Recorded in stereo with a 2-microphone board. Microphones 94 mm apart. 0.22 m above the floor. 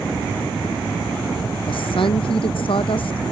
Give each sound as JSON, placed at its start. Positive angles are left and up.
{"t": 1.7, "sound": "a woman speaking", "side_deg": 60}